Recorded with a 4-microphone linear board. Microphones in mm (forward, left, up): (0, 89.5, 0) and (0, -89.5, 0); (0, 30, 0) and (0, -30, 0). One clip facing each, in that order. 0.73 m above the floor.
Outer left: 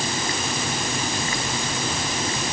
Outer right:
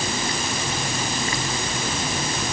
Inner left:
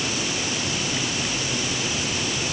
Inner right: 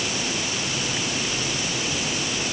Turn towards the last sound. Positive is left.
No sound to turn to.